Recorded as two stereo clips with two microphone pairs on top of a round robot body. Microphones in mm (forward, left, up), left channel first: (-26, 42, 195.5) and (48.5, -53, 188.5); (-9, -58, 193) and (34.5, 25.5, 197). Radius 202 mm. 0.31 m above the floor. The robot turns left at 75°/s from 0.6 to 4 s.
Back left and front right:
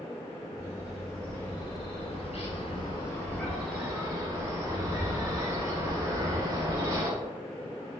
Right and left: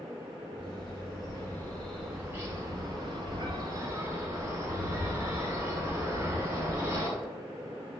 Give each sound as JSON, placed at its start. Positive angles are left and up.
{"t": 0.6, "sound": "a bird", "azimuth_deg": -105, "distance_m": 1.7}